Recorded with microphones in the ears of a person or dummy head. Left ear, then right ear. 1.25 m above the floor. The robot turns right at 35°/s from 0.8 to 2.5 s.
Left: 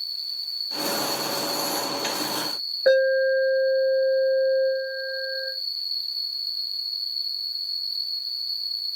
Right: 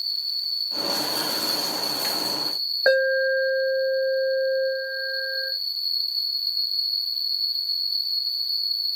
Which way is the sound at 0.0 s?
90° right.